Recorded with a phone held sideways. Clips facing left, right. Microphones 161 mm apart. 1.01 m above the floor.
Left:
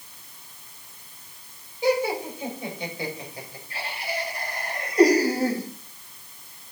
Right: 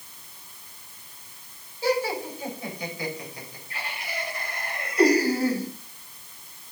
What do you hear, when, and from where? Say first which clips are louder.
1.8 s laughter: left 2 dB; 15° left (ahead or behind), 5 m; by 5.7 s 45° left (ahead or behind), 5.5 m